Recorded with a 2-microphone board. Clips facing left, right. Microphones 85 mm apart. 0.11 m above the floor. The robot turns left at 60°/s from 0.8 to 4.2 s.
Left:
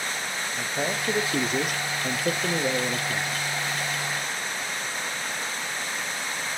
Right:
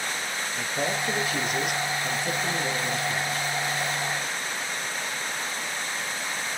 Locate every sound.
0.6 s a man speaking: 175° left, 2.5 m; by 3.4 s 20° left, 2.5 m